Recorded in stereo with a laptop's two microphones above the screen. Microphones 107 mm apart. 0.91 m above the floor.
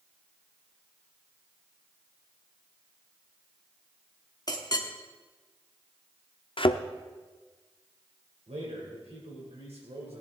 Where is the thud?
55° left (ahead or behind), 0.6 m.